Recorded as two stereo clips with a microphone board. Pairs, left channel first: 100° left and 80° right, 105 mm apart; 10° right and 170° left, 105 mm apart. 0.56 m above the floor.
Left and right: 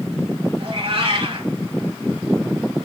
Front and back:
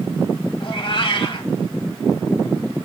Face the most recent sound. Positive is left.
turn(degrees=-50)